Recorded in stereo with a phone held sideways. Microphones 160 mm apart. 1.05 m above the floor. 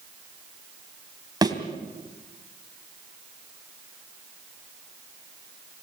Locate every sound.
1.4 s a thud: 25° right (ahead or behind), 2.5 m